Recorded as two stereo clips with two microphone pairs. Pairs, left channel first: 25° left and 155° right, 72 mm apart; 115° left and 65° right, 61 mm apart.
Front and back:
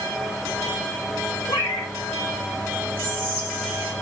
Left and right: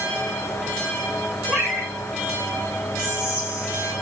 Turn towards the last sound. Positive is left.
turn(degrees=145)